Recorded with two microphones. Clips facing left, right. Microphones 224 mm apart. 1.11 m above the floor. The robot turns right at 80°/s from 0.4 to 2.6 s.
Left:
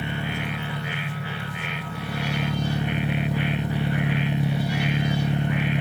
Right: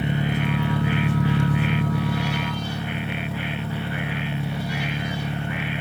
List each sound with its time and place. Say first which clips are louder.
0.0 s an engine running: right 5 dB; 160° right, 1.1 m; by 5.8 s 15° left, 1.1 m